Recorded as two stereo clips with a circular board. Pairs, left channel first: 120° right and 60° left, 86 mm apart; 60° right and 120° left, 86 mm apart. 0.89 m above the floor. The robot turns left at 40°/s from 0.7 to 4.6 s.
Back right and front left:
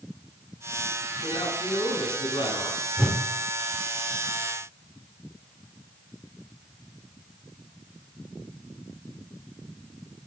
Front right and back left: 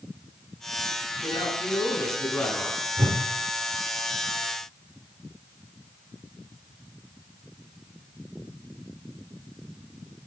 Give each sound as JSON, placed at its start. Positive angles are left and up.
{"t": 1.2, "sound": "a man speaking", "azimuth_deg": -80, "distance_m": 8.5}
{"t": 3.0, "sound": "a whoosh", "azimuth_deg": 145, "distance_m": 2.5}